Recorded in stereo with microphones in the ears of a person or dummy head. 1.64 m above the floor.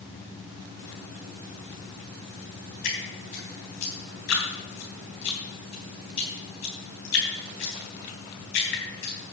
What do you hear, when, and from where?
2.8 s dripping: 55° left (ahead or behind), 3.5 m